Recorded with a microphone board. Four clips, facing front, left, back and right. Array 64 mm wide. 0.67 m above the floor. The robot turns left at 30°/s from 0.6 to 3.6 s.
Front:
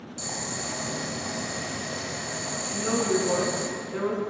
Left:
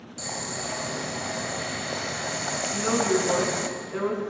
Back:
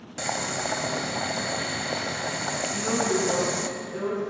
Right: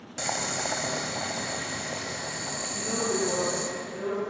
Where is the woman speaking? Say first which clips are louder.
Left 6 dB, front 1 dB; 95° left, 8 m; by 4.2 s 65° left, 8 m.